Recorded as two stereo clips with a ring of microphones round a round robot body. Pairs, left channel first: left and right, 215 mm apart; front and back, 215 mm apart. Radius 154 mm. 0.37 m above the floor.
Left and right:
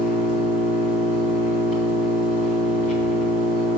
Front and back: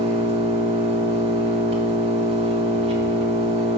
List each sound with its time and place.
0.0 s an engine running: 130° left, 1.3 m